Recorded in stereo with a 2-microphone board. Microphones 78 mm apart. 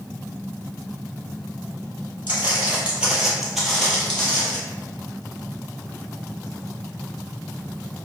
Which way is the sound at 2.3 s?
25° right (ahead or behind).